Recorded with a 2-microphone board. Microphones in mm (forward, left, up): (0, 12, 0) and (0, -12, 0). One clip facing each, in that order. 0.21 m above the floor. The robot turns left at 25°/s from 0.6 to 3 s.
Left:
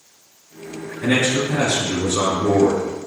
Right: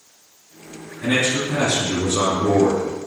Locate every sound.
1.0 s a man speaking: 5° left, 1.9 m; by 2.8 s 35° right, 1.9 m